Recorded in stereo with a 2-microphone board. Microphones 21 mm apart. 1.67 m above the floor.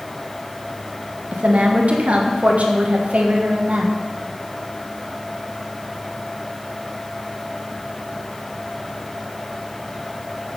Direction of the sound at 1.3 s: 70° right (ahead or behind).